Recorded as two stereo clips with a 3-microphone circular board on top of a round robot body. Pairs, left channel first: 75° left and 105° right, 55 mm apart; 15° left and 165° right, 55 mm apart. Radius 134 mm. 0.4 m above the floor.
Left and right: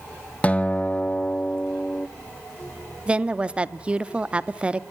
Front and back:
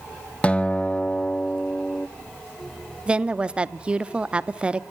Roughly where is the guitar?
Ahead left.